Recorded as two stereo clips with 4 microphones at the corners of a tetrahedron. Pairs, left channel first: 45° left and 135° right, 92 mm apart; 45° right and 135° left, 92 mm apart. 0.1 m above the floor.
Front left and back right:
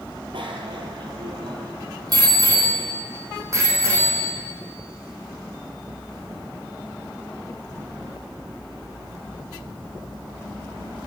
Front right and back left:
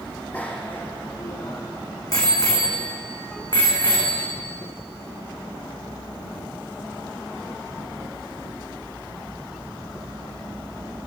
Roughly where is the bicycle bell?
Behind right.